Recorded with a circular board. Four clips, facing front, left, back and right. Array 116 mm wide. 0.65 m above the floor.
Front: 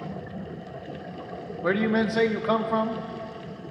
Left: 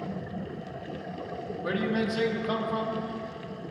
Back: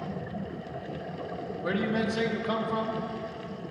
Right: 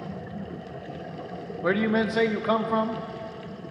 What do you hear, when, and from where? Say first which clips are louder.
1.6 s a man speaking: right 5 dB, front 5 dB; 50° right, 0.7 m